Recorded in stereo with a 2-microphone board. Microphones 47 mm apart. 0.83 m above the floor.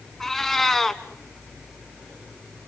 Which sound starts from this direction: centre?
A cat meowing, at 0.2 s.